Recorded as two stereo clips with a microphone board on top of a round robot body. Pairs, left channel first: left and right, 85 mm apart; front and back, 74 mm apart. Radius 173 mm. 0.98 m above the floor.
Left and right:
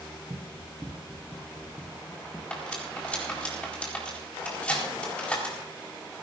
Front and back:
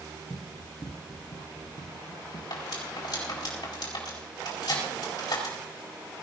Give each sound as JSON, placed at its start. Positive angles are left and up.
{"t": 0.3, "sound": "running footsteps", "azimuth_deg": -65, "distance_m": 1.3}
{"t": 2.5, "sound": "cutlery clinking", "azimuth_deg": 15, "distance_m": 4.5}